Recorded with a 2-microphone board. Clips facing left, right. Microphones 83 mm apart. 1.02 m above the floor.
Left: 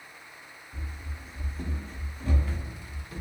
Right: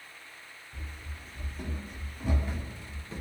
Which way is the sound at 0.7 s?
10° left (ahead or behind).